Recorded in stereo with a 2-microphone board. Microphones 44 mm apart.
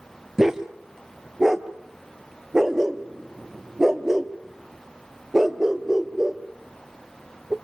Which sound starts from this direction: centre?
A dog barking, at 0.4 s.